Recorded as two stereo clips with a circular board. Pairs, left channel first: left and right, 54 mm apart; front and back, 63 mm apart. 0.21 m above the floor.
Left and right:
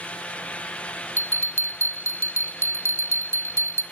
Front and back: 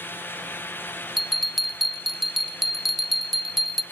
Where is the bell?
90° right, 1.2 m.